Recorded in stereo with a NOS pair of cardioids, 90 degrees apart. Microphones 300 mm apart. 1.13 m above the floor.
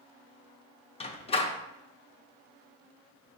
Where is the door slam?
20° left, 0.5 m.